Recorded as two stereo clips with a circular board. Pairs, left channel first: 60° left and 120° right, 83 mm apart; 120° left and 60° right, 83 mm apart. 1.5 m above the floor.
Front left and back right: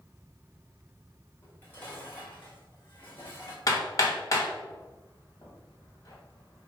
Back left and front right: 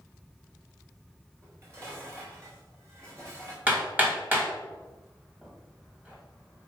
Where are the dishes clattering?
5° right, 3.5 m.